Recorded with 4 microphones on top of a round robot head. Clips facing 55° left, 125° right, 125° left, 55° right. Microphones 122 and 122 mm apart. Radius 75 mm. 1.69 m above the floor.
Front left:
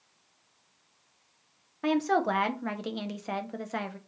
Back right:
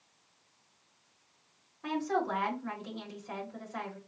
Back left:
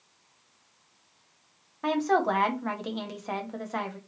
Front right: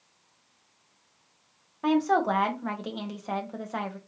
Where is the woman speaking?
30° left, 1.2 m.